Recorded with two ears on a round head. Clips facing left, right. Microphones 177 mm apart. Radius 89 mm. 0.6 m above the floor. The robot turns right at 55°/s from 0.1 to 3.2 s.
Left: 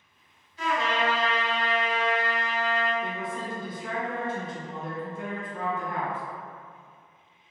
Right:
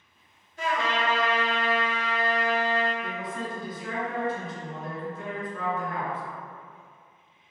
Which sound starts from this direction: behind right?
A trumpet, at 0.6 s.